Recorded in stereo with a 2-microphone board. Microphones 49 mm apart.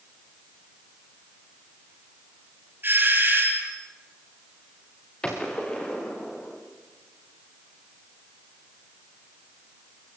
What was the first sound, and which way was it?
A doorbell, 40° right (ahead or behind).